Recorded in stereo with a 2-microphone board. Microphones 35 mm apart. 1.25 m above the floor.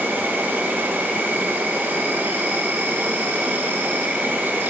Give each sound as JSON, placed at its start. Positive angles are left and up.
{"t": 0.0, "sound": "an insect", "side_deg": -85, "distance_m": 1.0}